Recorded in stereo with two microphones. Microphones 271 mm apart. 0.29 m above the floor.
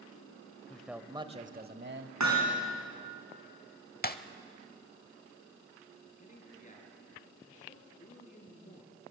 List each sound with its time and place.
0.7 s a man speaking: 5° left (ahead or behind), 1.0 m; by 2.1 s 45° right (ahead or behind), 1.3 m
2.2 s hammering: 85° right, 4.5 m
4.0 s breaking glass: 35° left (ahead or behind), 0.8 m
6.1 s a man speaking: 30° left (ahead or behind), 5 m